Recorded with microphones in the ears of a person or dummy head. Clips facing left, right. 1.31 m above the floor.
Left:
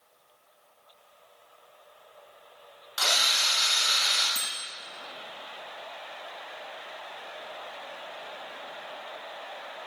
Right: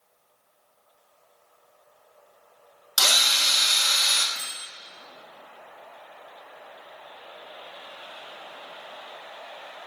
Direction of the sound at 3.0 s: 65° right (ahead or behind).